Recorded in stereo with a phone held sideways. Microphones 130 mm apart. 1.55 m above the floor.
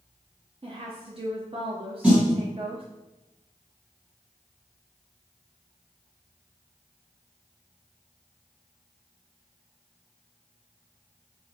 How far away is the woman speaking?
About 0.6 m.